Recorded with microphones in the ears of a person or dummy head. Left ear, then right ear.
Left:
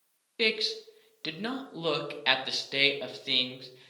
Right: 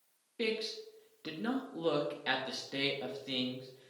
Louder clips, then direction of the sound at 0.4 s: Left 8 dB; 30° left (ahead or behind).